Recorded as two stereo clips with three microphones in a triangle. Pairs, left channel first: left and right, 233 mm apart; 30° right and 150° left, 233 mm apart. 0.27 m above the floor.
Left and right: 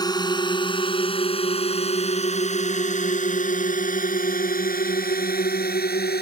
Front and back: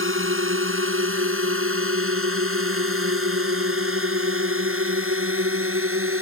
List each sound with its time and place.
0.0 s a drone: 160° left; by 6.2 s 135° left